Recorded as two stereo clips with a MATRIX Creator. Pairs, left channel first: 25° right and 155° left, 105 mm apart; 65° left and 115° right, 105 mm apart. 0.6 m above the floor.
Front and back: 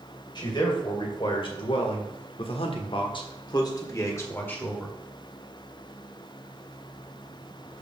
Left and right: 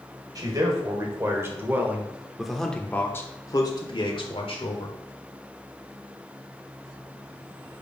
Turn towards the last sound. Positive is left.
turn(degrees=55)